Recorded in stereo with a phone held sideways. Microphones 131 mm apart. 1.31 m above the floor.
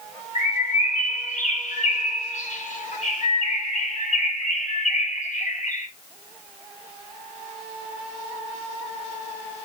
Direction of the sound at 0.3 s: 65° left (ahead or behind).